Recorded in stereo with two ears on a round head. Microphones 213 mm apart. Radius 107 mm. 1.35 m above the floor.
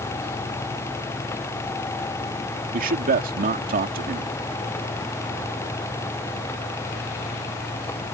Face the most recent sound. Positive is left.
turn(degrees=-40)  # may be behind; listen again after turning